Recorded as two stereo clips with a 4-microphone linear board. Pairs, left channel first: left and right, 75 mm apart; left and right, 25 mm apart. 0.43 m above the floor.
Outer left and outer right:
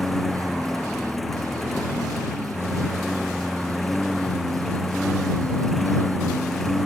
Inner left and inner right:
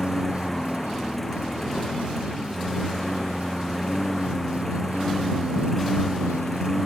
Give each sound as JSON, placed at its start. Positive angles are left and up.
{"t": 0.0, "sound": "a lawn mower", "side_deg": 0}